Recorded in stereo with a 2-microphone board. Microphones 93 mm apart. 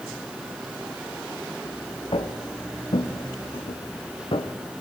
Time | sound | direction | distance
2.1 | footsteps | 85° left | 3.5 m